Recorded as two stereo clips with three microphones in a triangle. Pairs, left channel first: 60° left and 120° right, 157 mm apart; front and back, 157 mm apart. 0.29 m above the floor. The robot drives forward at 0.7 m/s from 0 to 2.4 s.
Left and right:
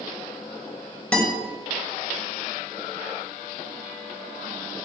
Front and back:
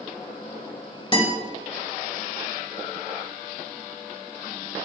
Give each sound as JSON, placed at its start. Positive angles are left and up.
{"t": 1.1, "sound": "a guitar", "azimuth_deg": -15, "distance_m": 1.8}